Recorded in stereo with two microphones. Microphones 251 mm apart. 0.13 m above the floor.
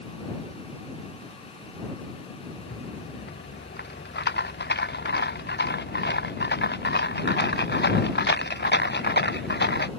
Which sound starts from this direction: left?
A rattle, at 2.6 s.